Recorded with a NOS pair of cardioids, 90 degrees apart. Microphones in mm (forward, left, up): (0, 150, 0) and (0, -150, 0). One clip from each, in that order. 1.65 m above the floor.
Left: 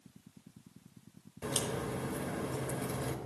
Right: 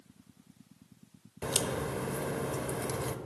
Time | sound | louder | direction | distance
1.4 | a crack | right 3 dB | 30° right | 0.9 m